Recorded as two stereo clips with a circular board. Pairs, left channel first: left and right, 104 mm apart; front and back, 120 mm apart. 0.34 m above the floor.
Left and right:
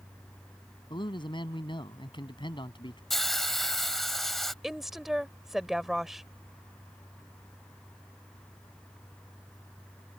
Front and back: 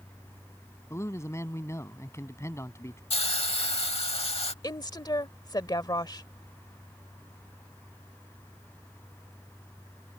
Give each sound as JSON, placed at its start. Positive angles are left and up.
{"t": 0.9, "sound": "a man speaking", "azimuth_deg": 65}
{"t": 3.1, "sound": "a hiss", "azimuth_deg": 5}
{"t": 4.6, "sound": "a woman speaking", "azimuth_deg": -5}